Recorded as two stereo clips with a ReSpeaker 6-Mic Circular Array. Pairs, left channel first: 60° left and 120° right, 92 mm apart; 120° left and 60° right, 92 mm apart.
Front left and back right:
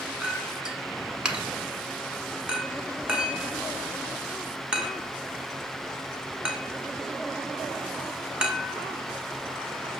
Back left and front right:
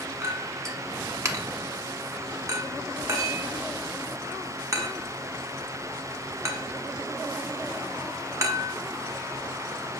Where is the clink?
45° right, 1.1 m.